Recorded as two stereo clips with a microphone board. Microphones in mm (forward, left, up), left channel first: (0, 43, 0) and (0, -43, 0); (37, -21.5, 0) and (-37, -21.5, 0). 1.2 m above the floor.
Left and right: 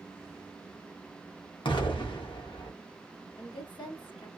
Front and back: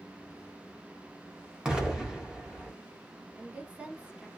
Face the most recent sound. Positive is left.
turn(degrees=105)